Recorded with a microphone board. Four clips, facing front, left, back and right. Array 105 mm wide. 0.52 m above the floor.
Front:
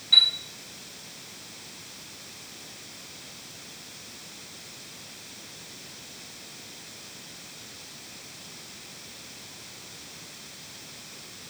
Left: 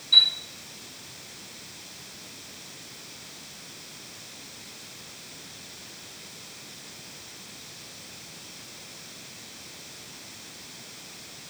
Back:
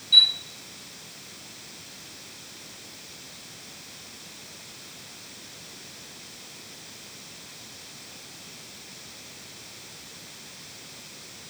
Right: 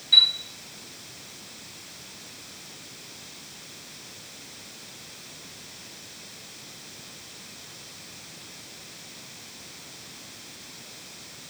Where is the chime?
25° right, 3 m.